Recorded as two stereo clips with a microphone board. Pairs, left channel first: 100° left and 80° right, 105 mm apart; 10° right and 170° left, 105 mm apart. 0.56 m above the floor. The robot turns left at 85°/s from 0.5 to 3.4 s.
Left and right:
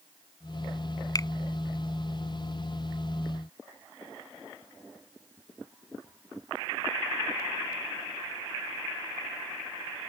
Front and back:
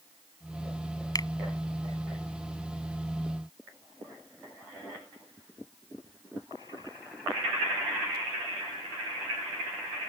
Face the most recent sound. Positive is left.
turn(degrees=-145)